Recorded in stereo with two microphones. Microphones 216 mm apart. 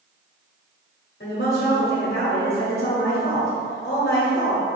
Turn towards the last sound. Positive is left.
turn(degrees=50)  # may be behind; listen again after turning